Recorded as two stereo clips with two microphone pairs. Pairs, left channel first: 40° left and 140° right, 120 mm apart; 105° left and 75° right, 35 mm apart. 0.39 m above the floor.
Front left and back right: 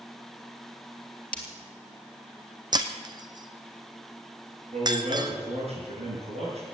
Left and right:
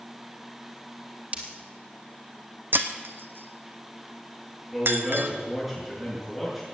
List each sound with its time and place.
1.3 s breaking glass: 40° right, 3 m
2.7 s breaking glass: 90° right, 1.1 m
4.7 s a man speaking: 165° right, 6.5 m